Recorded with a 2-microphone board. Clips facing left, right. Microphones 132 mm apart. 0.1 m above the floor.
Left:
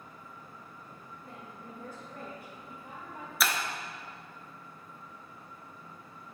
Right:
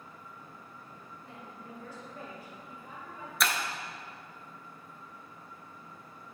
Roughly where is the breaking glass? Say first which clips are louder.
Even; centre.